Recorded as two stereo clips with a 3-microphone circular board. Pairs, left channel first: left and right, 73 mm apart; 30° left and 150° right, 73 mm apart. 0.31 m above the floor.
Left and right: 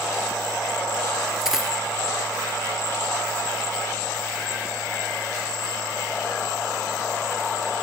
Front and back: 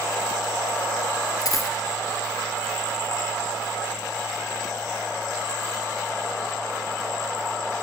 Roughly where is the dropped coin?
Ahead.